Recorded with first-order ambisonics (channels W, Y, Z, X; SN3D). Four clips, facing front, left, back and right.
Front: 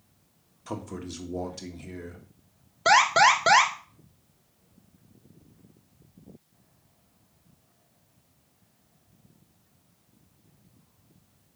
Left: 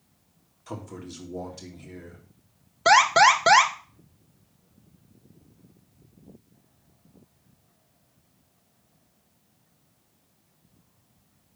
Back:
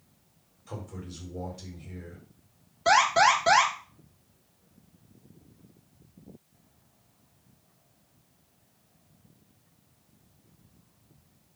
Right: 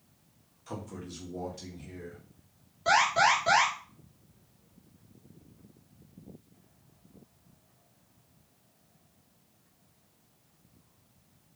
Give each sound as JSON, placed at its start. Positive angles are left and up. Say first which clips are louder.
{"t": 0.7, "sound": "a man speaking", "louder": "left 3 dB, front 5 dB", "azimuth_deg": 15, "distance_m": 1.8}
{"t": 2.9, "sound": "an alarm", "louder": "left 7 dB, front 2 dB", "azimuth_deg": 60, "distance_m": 1.3}